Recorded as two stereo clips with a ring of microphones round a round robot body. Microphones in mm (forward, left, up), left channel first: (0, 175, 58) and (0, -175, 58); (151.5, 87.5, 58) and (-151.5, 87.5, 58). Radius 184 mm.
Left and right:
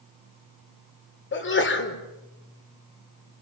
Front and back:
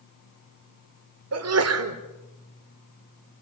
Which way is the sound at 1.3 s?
145° left.